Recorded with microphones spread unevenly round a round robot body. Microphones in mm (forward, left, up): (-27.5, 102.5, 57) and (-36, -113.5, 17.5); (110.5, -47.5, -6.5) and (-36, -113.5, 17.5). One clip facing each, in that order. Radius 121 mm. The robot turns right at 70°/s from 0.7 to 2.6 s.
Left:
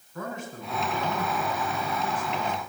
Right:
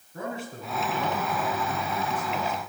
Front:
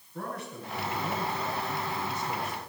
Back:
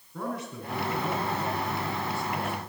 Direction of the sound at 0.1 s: 150° right.